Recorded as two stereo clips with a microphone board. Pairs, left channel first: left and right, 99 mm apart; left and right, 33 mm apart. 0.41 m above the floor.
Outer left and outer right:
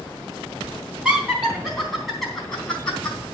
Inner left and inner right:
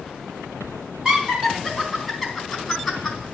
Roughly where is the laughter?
Centre.